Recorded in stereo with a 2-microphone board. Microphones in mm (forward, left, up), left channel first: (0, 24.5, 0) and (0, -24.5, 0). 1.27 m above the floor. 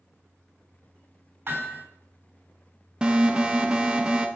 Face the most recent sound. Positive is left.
turn(degrees=-15)  # may be behind; listen again after turning